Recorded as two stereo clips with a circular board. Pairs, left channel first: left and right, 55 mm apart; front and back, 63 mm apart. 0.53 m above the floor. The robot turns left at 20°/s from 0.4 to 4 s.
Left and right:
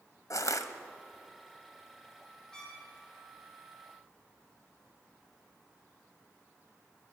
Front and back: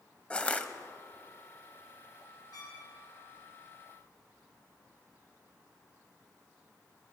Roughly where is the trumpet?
Ahead.